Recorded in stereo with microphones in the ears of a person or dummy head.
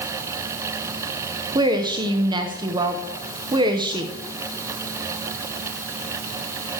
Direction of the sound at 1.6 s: 25° right (ahead or behind).